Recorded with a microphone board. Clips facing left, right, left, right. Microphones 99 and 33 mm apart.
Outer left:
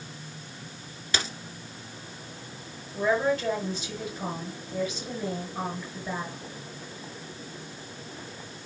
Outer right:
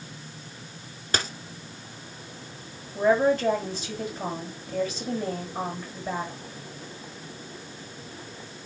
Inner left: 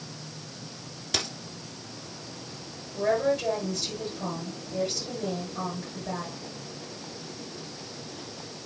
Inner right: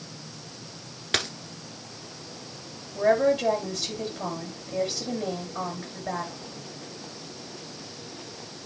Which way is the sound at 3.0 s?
40° right (ahead or behind).